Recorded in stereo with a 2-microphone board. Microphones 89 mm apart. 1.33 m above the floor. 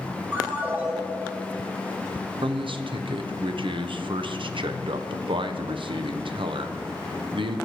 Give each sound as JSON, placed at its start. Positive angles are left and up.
{"t": 0.3, "sound": "a ringtone", "side_deg": -25, "distance_m": 1.9}
{"t": 2.4, "sound": "a man speaking", "side_deg": -75, "distance_m": 0.5}